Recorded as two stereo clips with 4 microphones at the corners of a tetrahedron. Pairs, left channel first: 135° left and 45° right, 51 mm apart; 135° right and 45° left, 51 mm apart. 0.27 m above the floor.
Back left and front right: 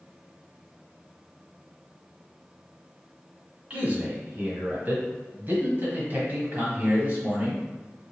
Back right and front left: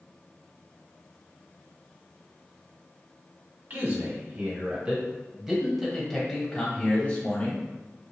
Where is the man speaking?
10° left, 1.8 m; by 7.7 s 90° right, 1.7 m.